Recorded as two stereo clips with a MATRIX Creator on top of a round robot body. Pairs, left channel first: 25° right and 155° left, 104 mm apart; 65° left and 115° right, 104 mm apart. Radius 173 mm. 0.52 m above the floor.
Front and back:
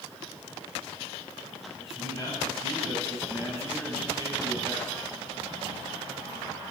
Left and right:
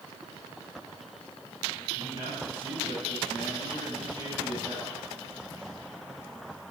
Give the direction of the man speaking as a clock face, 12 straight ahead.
3 o'clock.